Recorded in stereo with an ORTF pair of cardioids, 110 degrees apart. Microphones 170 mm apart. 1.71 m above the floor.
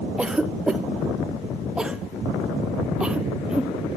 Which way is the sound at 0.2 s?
5° right.